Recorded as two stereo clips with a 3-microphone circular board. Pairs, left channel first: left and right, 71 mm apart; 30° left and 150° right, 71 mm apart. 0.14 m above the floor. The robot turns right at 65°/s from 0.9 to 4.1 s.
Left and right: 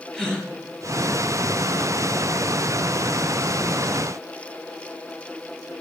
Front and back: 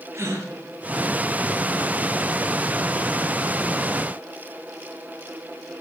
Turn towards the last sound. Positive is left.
turn(degrees=15)